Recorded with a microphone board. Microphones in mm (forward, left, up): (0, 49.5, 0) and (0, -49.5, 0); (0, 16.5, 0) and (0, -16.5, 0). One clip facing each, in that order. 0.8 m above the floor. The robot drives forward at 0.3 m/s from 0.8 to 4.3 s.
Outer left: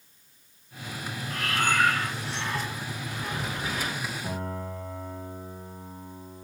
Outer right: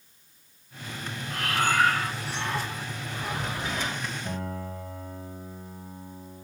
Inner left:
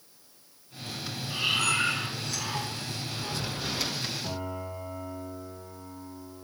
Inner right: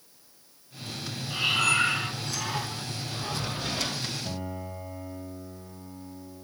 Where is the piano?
70° left (ahead or behind), 9 m.